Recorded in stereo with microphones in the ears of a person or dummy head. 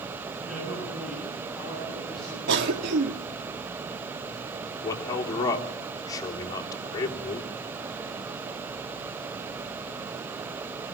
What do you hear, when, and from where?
0.4 s a man speaking: 5° right (ahead or behind), 9.5 m; by 2.4 s centre (ahead or behind), 9 m
2.5 s a cough: 65° right (ahead or behind), 1.9 m
4.8 s a man speaking: 20° left (ahead or behind), 3.5 m